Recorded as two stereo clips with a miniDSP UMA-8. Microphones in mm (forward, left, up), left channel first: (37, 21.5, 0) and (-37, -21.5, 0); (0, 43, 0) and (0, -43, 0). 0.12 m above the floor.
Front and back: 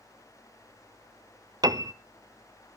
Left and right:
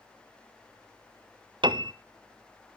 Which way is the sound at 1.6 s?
110° right.